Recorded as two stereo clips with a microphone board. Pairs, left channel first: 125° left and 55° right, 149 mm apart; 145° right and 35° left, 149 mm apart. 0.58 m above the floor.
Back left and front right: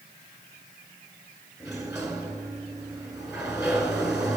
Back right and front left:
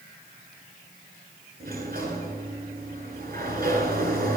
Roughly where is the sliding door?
Ahead.